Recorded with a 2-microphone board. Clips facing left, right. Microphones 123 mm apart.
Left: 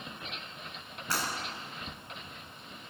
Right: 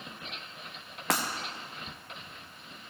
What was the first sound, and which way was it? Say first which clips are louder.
Breaking glass: right 5 dB; 85° right.